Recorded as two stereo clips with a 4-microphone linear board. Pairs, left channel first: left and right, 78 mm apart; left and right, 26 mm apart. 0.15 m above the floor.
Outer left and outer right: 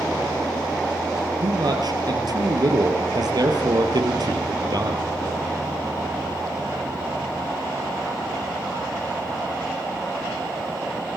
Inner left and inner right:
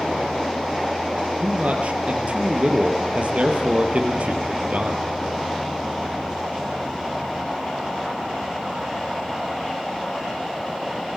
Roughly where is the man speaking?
Right.